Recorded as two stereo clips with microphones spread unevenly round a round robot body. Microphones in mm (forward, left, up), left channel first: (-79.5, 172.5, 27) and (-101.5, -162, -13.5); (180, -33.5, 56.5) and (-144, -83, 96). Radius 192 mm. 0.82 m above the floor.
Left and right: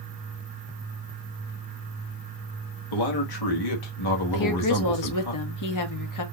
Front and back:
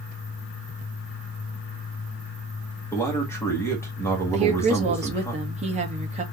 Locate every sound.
2.9 s a man speaking: 90° left, 1.6 m
4.3 s a woman speaking: 115° left, 1.3 m